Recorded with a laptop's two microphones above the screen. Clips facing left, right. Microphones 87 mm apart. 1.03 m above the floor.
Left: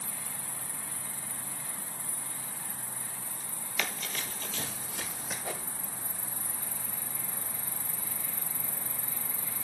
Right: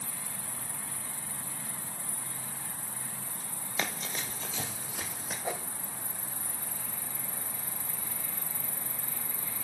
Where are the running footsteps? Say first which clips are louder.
Right 1 dB; 30° right (ahead or behind), 1.1 m; by 5.3 s centre (ahead or behind), 1.9 m.